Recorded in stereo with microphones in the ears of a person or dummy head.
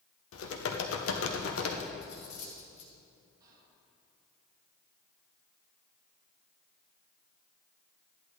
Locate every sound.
0.3 s typing on a keyboard: 85° left, 1.2 m
2.0 s cutlery clinking: 45° left (ahead or behind), 1.3 m
3.4 s whispering: 25° right (ahead or behind), 2 m